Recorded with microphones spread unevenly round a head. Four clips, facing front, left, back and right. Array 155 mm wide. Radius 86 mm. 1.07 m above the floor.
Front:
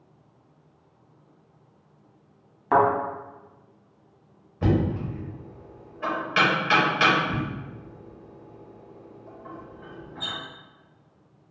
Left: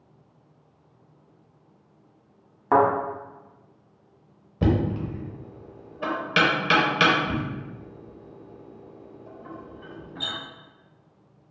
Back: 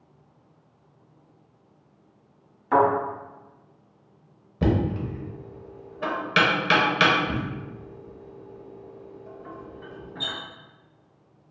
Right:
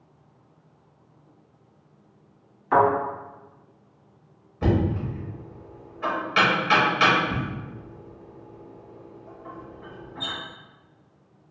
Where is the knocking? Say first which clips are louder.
Even, even; 135° left, 0.8 m.